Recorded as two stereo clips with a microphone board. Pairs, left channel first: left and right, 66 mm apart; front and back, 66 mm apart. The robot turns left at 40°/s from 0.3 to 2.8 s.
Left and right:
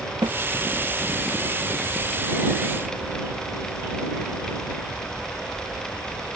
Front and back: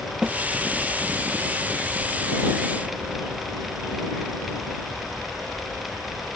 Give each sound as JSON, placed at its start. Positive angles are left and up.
{"t": 0.2, "sound": "a snare drum", "azimuth_deg": -105}